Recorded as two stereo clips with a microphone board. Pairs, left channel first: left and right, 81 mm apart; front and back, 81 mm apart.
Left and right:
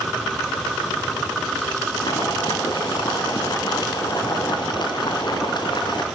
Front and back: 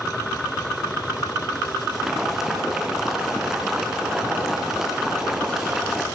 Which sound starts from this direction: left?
Boiling, at 1.9 s.